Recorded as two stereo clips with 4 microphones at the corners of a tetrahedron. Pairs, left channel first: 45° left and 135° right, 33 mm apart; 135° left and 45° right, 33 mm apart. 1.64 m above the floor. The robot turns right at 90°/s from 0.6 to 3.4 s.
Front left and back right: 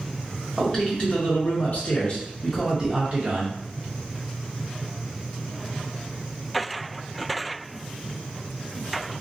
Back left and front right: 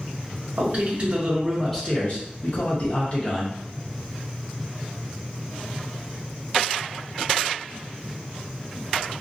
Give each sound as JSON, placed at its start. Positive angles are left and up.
{"t": 0.6, "sound": "a man speaking", "azimuth_deg": -40, "distance_m": 0.7}